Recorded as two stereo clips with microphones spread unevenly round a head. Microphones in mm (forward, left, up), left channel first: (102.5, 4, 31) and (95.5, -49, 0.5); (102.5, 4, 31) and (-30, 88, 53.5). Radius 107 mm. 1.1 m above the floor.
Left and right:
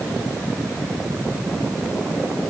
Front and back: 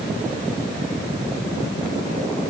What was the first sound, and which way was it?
Only background noise.